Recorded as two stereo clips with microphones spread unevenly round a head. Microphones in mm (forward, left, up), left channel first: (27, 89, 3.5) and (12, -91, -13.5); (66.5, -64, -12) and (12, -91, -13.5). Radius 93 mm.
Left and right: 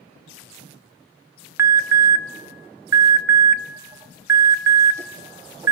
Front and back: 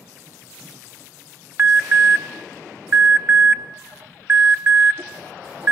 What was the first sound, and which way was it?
An alarm, 155° right.